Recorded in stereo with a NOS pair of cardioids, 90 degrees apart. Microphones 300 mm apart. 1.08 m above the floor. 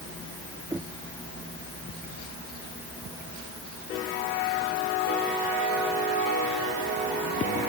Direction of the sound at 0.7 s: 10° right.